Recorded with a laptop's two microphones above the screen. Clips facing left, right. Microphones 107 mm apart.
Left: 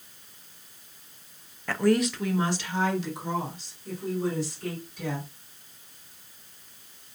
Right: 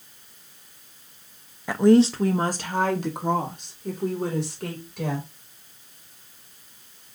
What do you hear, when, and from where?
1.7 s a woman speaking: 15° right (ahead or behind), 0.6 m; by 5.3 s 70° right (ahead or behind), 2.5 m